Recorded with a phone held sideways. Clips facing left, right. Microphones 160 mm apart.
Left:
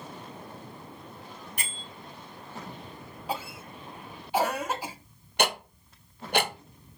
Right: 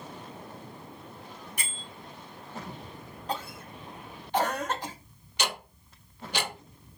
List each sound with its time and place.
1.6 s a bell: 70° left (ahead or behind), 2.5 m
3.3 s a cough: 10° left (ahead or behind), 0.5 m
5.4 s ticking: 65° left (ahead or behind), 0.6 m